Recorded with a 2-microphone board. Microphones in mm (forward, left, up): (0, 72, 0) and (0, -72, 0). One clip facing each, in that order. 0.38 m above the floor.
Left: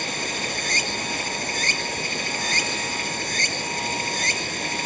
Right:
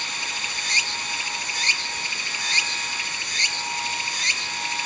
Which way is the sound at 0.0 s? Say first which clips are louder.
Left 6 dB; 50° left (ahead or behind).